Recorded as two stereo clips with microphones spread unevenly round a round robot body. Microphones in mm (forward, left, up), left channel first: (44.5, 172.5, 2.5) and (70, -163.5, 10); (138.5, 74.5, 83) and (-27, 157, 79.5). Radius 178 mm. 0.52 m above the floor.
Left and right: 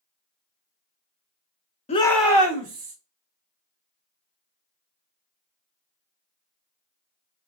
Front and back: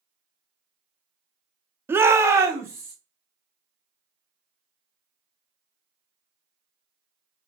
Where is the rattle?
No rattle in this recording.